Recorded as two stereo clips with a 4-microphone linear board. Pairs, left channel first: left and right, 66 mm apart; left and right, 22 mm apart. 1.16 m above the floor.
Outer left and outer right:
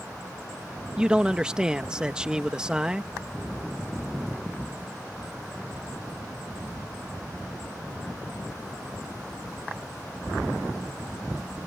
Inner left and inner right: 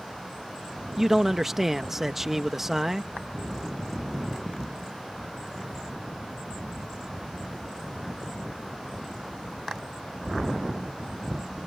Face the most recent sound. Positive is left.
turn(degrees=-15)  # may be behind; listen again after turning